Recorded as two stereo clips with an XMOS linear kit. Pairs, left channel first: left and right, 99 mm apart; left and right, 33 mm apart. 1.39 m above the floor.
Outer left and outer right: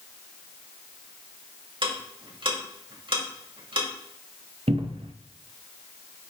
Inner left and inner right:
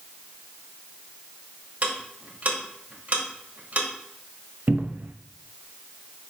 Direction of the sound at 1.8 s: 55° right (ahead or behind).